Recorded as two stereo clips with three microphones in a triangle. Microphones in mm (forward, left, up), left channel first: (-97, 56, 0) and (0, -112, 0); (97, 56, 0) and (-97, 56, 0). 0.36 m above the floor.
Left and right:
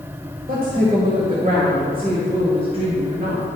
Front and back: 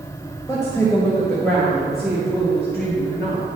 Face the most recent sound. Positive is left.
turn(degrees=-100)